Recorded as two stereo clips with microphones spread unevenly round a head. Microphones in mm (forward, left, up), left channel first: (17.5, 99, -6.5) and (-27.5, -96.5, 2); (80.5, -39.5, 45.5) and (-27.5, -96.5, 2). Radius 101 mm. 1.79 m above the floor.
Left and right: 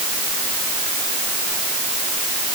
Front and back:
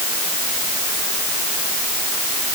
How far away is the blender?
No blender in this recording.